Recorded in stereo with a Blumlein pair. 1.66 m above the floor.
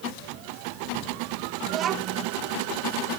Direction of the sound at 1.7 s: 30° right.